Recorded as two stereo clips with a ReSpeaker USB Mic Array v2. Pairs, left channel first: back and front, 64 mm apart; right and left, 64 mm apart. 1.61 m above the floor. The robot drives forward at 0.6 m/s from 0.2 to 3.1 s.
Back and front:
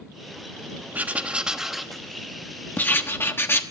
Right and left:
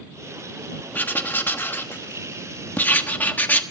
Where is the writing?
45° right, 1.2 m; by 3.6 s 145° right, 1.3 m.